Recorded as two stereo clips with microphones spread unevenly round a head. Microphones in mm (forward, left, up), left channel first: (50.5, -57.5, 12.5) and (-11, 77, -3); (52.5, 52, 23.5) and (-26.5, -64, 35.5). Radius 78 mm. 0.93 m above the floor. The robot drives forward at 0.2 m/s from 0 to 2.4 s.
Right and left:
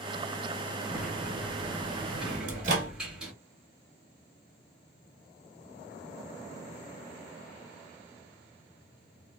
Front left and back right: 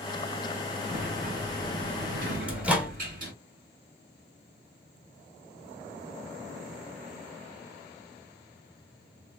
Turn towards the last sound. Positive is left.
turn(degrees=155)